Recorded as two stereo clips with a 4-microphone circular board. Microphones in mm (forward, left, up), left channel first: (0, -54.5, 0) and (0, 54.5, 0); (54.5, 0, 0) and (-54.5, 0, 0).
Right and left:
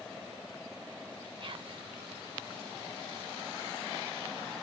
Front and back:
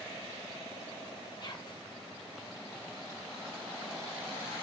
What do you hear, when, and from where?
1.4 s whispering: 50° left, 0.7 m